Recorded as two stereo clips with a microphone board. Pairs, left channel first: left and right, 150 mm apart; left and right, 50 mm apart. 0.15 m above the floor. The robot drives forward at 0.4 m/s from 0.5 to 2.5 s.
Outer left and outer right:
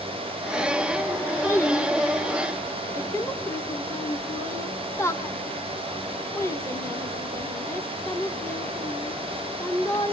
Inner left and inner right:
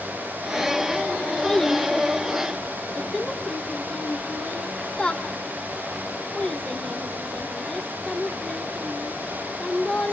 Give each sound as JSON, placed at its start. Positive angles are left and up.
{"t": 1.4, "sound": "a child speaking", "side_deg": 20, "distance_m": 1.1}